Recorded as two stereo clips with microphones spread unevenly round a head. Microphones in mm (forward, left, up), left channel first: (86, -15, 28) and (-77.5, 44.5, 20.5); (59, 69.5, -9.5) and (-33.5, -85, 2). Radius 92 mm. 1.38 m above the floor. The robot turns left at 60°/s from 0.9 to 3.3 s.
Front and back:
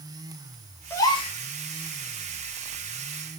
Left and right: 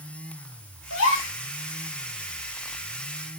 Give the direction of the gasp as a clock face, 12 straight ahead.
10 o'clock.